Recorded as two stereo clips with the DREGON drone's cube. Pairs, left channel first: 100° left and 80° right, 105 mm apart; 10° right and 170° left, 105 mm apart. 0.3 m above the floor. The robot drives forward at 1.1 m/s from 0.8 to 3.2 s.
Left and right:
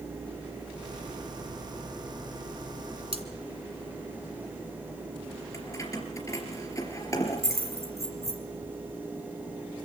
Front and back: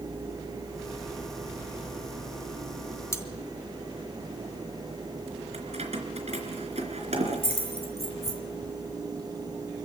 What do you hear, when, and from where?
3.1 s cutlery clinking: 75° right, 1.9 m
5.5 s keys jangling: 160° left, 3.5 m